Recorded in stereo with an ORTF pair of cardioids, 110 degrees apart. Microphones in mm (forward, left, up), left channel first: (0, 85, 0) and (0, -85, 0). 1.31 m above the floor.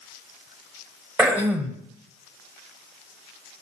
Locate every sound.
1.2 s throat clearing: 10° right, 0.7 m